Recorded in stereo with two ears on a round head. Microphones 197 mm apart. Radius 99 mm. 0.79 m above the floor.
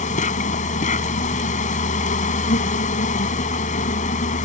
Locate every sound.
0.0 s an insect: 35° left (ahead or behind)